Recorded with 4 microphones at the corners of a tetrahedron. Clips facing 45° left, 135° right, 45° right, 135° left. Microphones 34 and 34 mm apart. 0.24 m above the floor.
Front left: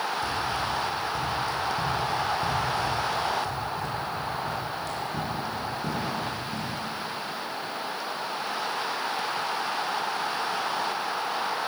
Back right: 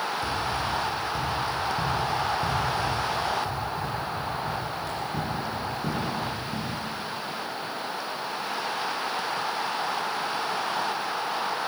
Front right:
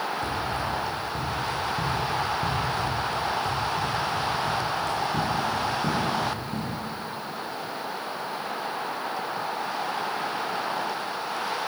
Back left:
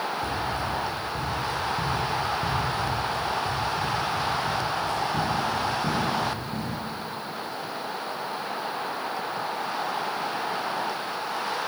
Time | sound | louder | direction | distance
0.2 | running footsteps | even, even | 75° right | 9.5 m